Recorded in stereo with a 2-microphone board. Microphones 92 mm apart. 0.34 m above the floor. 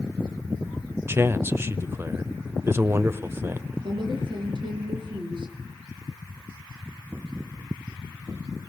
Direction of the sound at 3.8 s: 60° right (ahead or behind).